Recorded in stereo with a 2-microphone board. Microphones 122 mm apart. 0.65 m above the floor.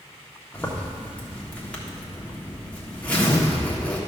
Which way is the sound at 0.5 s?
10° left (ahead or behind).